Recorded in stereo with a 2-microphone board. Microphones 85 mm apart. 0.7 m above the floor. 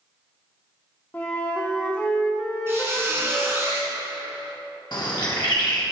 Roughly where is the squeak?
Right.